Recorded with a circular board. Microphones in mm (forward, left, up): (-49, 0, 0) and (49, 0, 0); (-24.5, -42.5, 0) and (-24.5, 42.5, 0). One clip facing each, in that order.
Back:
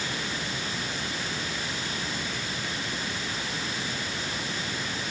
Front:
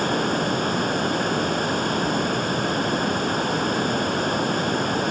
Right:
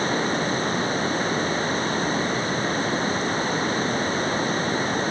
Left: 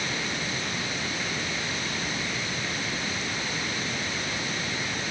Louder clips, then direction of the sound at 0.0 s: Front 12 dB, right 9 dB; 40° right.